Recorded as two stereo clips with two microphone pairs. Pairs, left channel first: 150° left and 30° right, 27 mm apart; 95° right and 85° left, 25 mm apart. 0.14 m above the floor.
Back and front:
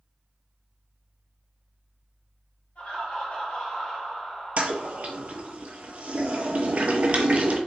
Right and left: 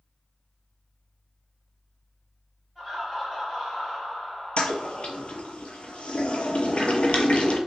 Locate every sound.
2.8 s laughter: straight behind, 1.8 m; by 5.6 s 75° right, 1.3 m
4.6 s a toilet flushing: 65° right, 0.6 m